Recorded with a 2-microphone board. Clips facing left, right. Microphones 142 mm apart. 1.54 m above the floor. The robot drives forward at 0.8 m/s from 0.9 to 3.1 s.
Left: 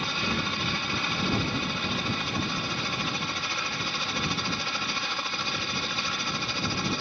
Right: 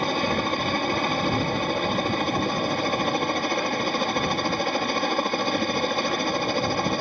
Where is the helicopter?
50° right (ahead or behind).